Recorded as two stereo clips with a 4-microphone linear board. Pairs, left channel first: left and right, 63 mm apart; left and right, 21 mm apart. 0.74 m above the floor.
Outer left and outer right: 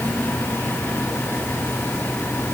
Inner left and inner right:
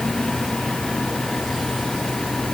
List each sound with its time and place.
Only background noise.